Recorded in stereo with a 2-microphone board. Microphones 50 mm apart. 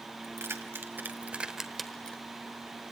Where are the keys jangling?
60° right (ahead or behind), 2.5 m; by 2.2 s 35° left (ahead or behind), 1.4 m.